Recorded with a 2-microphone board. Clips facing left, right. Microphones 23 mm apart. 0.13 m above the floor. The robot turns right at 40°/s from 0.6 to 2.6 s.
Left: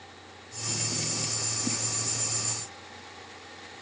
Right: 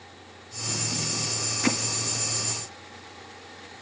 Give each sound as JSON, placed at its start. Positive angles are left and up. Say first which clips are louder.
{"t": 1.6, "sound": "hammering", "louder": "right 10 dB", "side_deg": -55, "distance_m": 2.0}